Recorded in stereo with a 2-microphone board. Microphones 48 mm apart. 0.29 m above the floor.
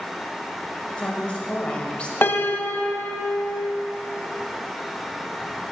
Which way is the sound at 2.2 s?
50° left (ahead or behind).